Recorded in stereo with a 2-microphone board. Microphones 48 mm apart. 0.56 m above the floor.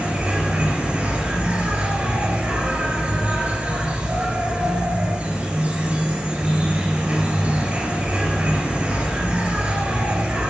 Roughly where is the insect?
Right.